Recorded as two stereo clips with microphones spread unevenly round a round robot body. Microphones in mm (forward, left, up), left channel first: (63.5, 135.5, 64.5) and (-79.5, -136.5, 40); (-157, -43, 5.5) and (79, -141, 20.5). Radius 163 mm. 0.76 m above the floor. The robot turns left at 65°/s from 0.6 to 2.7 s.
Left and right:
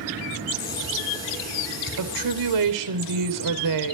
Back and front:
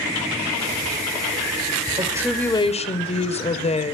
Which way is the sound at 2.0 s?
90° right.